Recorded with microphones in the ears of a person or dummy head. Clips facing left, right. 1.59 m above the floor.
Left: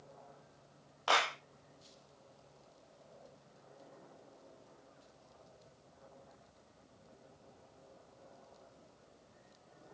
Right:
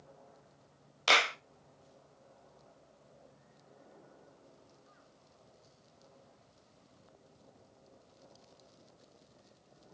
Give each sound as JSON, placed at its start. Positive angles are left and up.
{"t": 1.1, "sound": "a clap", "side_deg": -20, "distance_m": 0.5}